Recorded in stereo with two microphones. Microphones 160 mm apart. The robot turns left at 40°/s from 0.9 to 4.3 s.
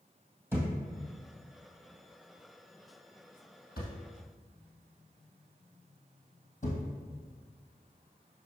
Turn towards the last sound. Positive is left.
turn(degrees=60)  # may be behind; listen again after turning